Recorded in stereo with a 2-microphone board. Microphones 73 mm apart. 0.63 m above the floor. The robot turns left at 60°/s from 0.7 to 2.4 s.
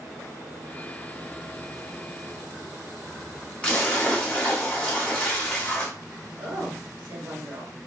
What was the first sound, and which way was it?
A splash, 15° left (ahead or behind).